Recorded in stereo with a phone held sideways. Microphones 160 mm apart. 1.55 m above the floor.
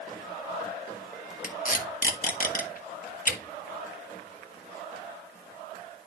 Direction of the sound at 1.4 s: 50° left (ahead or behind).